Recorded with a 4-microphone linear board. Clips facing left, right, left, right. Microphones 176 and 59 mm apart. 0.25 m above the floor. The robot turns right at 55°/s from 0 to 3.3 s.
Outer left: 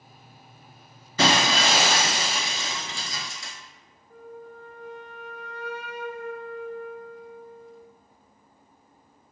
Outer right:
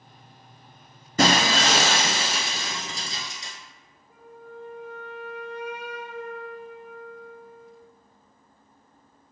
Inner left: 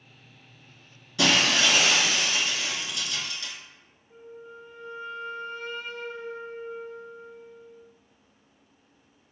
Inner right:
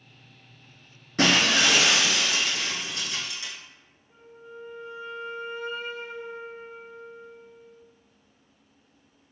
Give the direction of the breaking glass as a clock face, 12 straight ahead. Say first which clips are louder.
Outer right 1 dB, inner right 1 dB; 5 o'clock.